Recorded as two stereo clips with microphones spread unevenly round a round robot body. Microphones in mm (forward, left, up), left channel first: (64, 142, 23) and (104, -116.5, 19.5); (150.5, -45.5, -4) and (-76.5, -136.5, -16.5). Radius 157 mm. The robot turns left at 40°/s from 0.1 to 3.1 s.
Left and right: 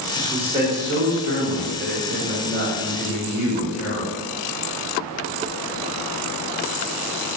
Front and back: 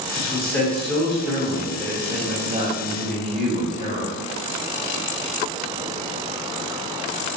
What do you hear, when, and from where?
0.1 s a man speaking: 40° right, 1.6 m; by 4.1 s 155° right, 1.6 m